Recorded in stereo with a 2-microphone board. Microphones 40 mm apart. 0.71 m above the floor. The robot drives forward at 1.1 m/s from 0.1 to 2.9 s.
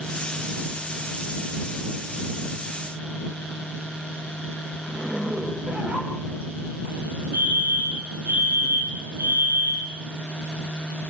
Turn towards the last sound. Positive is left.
turn(degrees=-70)  # may be behind; listen again after turning